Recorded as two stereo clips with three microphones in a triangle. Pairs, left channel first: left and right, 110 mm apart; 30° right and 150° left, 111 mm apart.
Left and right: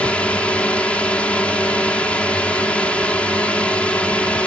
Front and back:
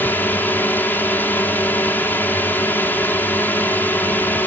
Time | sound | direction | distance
0.0 | a drone | 20° left | ?